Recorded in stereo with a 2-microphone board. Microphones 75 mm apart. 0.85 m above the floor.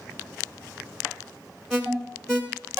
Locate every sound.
1.7 s an alarm: 5° left (ahead or behind), 1.6 m